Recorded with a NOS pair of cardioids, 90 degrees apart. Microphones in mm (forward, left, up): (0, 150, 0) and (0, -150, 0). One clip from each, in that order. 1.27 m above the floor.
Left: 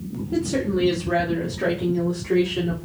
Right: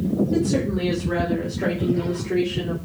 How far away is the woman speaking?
About 2 m.